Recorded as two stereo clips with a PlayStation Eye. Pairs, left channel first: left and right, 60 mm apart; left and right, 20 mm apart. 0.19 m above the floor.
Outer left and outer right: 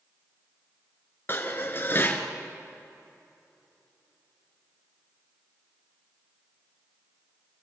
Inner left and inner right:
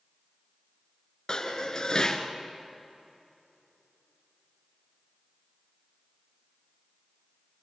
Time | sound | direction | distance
1.3 | dishes clattering | 40° left (ahead or behind) | 2 m